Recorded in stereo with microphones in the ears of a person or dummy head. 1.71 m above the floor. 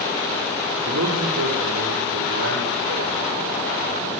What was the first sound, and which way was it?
A man speaking, 90° right.